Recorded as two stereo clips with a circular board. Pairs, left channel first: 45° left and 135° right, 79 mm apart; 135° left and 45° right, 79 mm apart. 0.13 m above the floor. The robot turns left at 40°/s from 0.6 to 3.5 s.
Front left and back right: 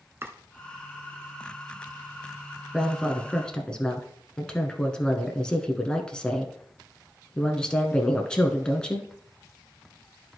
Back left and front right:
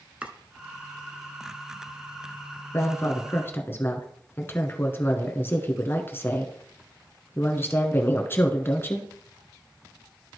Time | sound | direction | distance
0.2 | chopping | 105° right | 0.7 m
2.7 | a woman speaking | 145° left | 1.1 m